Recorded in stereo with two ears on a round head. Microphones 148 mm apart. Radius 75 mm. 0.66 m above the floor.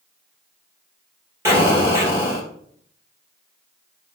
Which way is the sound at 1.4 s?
15° right (ahead or behind).